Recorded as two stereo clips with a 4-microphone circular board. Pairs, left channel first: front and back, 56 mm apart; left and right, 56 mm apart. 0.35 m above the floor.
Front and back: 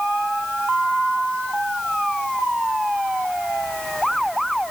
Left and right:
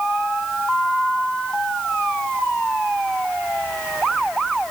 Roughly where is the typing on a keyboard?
No typing on a keyboard in this recording.